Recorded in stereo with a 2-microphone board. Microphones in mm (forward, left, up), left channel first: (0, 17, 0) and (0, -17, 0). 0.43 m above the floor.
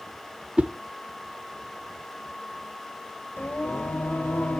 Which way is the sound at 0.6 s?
35° right (ahead or behind).